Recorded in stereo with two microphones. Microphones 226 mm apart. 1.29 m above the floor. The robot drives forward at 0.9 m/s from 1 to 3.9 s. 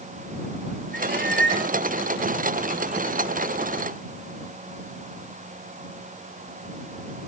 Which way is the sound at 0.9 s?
50° right (ahead or behind).